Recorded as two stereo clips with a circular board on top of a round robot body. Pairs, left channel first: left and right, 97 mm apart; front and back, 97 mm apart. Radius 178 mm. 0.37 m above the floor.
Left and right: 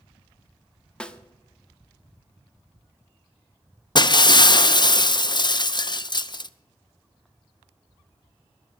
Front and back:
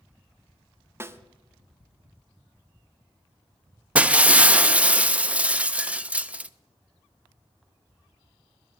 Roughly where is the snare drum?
Behind.